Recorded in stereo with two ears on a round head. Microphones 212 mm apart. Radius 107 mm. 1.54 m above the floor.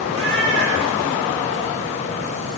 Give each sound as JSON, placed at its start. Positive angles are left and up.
{"t": 0.1, "sound": "a cat meowing", "side_deg": -60, "distance_m": 8.0}